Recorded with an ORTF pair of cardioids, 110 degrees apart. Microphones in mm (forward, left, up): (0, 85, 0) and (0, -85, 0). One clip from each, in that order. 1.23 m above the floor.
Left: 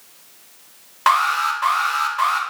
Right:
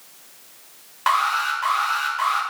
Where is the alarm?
25° left, 1.2 m.